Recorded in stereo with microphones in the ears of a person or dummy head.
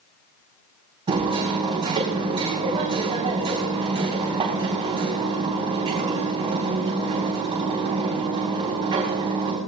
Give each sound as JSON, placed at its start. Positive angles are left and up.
{"t": 1.1, "sound": "hammering", "side_deg": -30, "distance_m": 4.5}